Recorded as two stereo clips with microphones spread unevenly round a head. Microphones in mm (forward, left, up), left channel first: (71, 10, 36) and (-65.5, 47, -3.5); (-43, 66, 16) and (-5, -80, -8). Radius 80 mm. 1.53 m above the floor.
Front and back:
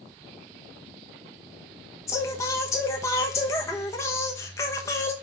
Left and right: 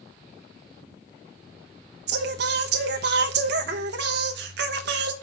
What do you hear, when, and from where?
2.1 s singing: 75° right, 1.0 m